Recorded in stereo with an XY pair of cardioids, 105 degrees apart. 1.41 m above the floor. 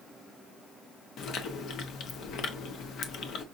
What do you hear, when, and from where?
1.2 s chewing: 70° left, 0.8 m